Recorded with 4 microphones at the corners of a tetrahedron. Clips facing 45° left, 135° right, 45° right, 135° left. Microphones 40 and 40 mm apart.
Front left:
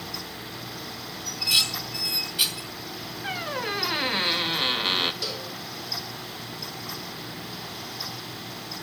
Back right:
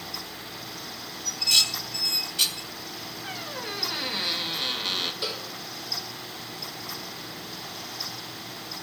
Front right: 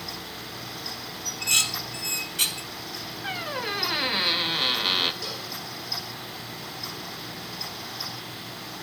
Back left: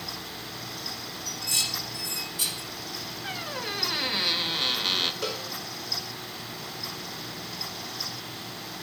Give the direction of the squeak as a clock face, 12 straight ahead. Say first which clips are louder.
Front left 7 dB, front right 4 dB; 11 o'clock.